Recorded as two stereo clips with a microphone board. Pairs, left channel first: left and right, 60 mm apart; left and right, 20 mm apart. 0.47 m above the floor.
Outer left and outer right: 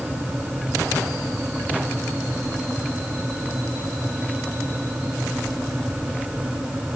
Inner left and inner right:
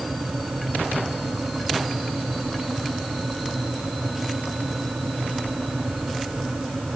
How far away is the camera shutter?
I don't hear a camera shutter.